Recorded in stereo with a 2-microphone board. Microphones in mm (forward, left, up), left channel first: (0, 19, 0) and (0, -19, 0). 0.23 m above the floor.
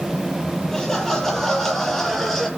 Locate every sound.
0.7 s laughter: 15° left (ahead or behind), 7.5 m; by 2.5 s 5° left (ahead or behind), 6 m